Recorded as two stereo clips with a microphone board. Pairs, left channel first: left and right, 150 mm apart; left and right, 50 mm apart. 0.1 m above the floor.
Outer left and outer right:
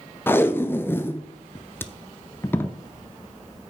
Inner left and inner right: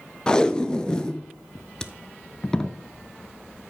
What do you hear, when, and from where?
0.3 s tape being pulled: 15° left (ahead or behind), 0.6 m